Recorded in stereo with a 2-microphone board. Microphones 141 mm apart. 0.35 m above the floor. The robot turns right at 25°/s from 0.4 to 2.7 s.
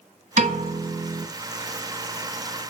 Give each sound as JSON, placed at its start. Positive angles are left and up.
{"t": 0.4, "sound": "a piano", "side_deg": -60, "distance_m": 2.0}